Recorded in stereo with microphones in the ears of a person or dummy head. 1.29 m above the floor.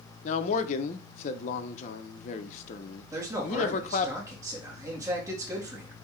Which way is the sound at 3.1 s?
15° right (ahead or behind).